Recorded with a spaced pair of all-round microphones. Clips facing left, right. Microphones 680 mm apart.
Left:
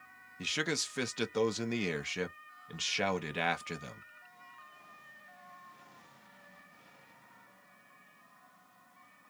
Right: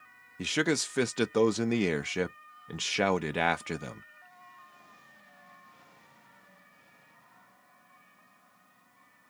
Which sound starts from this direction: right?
A man speaking, at 0.4 s.